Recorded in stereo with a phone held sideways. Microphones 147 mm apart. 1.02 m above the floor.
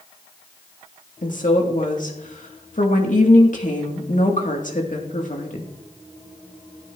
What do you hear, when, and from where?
1.2 s a woman speaking: 60° left (ahead or behind), 2 m